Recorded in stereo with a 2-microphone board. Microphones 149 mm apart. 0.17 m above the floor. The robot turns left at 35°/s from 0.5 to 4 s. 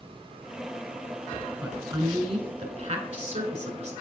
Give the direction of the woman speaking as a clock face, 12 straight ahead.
1 o'clock.